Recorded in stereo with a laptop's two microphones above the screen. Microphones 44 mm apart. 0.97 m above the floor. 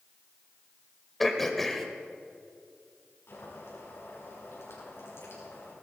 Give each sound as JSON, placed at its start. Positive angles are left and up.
{"t": 1.2, "sound": "throat clearing", "side_deg": 5, "distance_m": 1.5}
{"t": 3.3, "sound": "boiling", "side_deg": 60, "distance_m": 5.5}